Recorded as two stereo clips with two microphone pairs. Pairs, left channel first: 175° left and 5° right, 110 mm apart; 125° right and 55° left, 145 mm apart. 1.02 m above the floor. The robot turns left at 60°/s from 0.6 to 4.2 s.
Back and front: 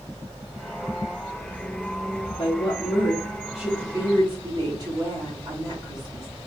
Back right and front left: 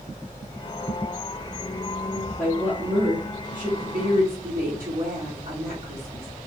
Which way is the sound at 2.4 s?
145° left.